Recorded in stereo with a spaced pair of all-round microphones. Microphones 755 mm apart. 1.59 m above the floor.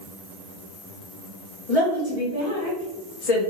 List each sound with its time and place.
1.7 s a woman speaking: 50° left (ahead or behind), 1.9 m; by 3.4 s 60° left (ahead or behind), 0.9 m